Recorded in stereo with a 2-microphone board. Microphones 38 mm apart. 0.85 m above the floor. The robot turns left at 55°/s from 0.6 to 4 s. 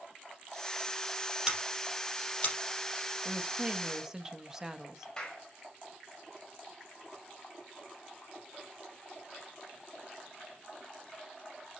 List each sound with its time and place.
1.5 s scissors: 20° right (ahead or behind), 4.5 m; by 2.5 s 40° left (ahead or behind), 4.5 m
3.2 s a woman speaking: 115° right, 1.1 m; by 5.1 s 160° right, 1.1 m
5.2 s a clap: 20° left (ahead or behind), 4.5 m